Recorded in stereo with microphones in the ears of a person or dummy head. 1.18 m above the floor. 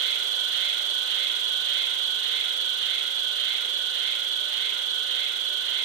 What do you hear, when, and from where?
0.0 s an insect: 70° right (ahead or behind), 1.0 m